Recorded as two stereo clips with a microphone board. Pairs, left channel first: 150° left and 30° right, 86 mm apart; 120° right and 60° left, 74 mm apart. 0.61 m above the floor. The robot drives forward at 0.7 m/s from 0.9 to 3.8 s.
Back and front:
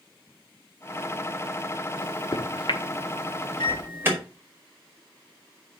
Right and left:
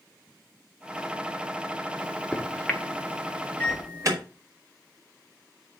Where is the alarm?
30° left, 3 m.